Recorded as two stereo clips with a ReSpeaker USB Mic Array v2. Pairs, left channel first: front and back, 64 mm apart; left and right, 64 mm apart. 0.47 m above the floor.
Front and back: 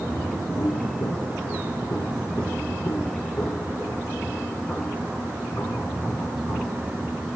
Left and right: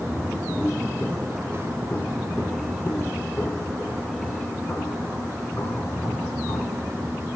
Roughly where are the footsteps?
Ahead.